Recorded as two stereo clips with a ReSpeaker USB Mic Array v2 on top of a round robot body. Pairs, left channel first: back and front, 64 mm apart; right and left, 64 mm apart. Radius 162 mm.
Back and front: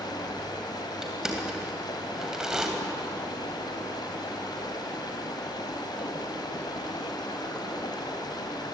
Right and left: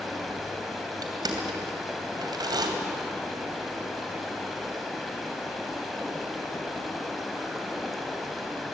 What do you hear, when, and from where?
0.0 s running water: straight behind, 2.5 m
1.0 s crushing: 80° left, 2.5 m